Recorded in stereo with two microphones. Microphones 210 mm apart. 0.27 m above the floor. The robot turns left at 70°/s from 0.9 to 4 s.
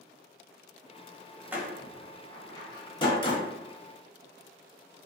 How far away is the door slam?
About 0.6 m.